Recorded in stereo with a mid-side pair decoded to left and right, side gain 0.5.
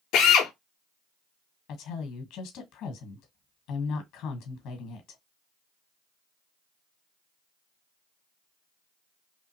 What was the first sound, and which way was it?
A drill, 70° left.